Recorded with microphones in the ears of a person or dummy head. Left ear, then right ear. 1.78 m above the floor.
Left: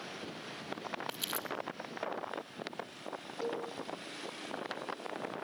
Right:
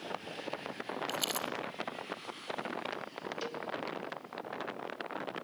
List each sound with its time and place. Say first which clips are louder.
1.1 s crumpling: right 5 dB; 20° right (ahead or behind), 3.5 m
3.4 s a cowbell: left 6 dB; 45° right (ahead or behind), 2.5 m